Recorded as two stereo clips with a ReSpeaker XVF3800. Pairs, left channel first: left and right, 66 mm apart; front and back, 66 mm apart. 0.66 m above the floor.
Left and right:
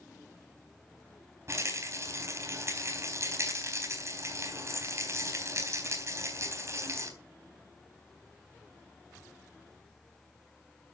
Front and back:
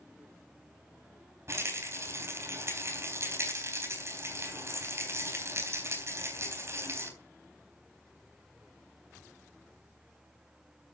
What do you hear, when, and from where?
1.5 s a rattle: 135° right, 4 m